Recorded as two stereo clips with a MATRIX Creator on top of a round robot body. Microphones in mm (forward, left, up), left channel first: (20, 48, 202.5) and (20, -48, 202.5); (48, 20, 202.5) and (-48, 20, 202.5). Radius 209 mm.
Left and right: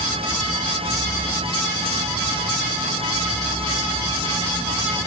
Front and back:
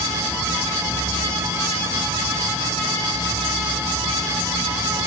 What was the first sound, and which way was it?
Only background noise.